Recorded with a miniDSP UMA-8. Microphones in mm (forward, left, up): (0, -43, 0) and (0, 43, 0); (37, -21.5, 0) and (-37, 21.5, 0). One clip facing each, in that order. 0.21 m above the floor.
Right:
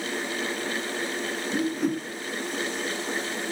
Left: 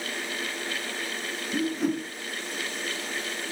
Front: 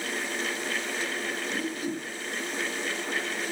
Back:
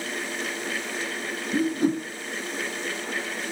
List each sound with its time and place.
1.5 s a whoosh: straight behind, 2.5 m